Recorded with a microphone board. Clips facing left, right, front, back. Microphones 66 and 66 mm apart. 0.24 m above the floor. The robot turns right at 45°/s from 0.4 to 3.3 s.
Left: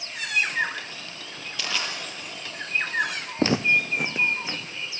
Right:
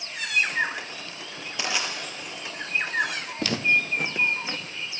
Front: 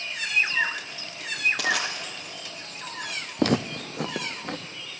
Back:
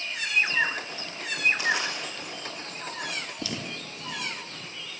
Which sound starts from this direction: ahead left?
Footsteps, at 3.4 s.